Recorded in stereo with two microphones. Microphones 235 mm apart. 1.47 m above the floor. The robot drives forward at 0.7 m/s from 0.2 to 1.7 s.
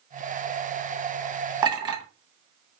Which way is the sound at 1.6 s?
20° right (ahead or behind).